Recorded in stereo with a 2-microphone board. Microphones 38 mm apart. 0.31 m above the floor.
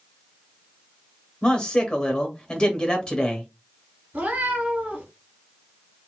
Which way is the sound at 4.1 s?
50° right (ahead or behind).